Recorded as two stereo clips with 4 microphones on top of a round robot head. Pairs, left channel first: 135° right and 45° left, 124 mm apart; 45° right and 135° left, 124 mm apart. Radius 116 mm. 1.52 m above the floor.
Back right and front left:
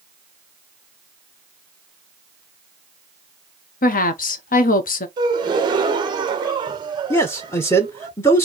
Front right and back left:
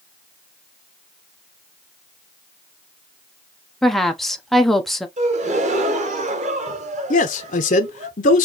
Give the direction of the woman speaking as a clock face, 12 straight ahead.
4 o'clock.